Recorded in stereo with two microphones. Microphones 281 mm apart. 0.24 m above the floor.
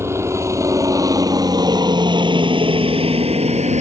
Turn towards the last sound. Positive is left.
turn(degrees=-25)  # may be behind; listen again after turning